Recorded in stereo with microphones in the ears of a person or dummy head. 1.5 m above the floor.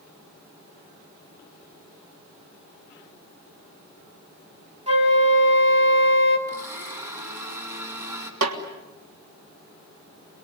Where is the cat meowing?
No cat meowing in this recording.